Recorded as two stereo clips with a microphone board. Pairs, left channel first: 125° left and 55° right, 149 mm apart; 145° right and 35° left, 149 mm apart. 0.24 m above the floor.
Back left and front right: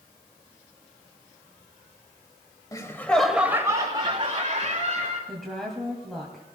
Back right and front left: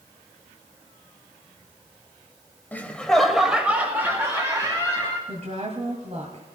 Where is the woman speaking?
35° left, 1.9 m.